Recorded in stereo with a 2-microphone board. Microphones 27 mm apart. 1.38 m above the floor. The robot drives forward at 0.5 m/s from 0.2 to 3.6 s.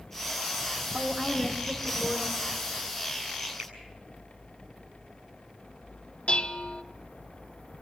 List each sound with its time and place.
0.9 s a woman speaking: 20° right (ahead or behind), 3.5 m; by 2.4 s 15° right (ahead or behind), 4 m
3.6 s a finger snap: 60° right (ahead or behind), 8.5 m
6.3 s dishes clattering: 50° left (ahead or behind), 1.1 m